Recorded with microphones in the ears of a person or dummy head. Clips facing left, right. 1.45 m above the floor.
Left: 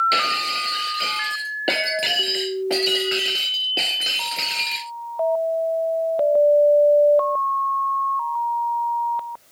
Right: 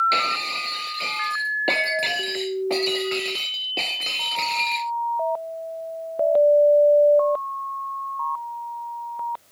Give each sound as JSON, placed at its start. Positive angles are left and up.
{"t": 0.1, "sound": "breaking glass", "side_deg": 10}